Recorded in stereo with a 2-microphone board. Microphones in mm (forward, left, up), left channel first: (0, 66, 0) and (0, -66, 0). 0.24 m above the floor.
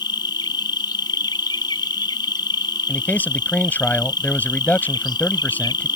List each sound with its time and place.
0.0 s an insect: 35° left (ahead or behind)
2.9 s a man speaking: 15° left (ahead or behind)